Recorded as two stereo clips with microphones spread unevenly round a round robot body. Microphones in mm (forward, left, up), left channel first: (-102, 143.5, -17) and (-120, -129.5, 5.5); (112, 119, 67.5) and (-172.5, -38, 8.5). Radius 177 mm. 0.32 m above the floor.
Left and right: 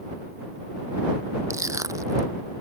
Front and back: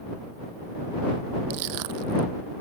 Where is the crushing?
175° right.